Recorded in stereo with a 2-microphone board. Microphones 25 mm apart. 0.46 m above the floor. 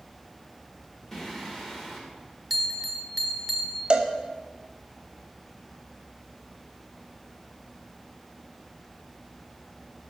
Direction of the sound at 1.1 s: 15° left (ahead or behind).